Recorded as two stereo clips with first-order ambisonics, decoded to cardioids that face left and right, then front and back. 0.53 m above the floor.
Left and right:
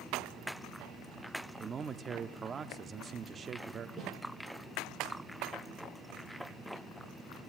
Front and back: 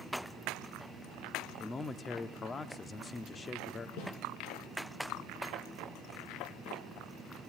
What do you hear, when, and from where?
1.6 s a man speaking: 50° right, 0.7 m
4.0 s a snare drum: straight ahead, 8.5 m